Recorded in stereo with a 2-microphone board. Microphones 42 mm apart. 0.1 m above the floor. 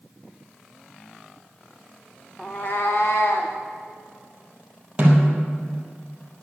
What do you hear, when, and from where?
2.4 s a cat meowing: 20° left (ahead or behind), 1.1 m; by 3.5 s 55° left (ahead or behind), 2.5 m
5.0 s a snare drum: 25° right (ahead or behind), 3 m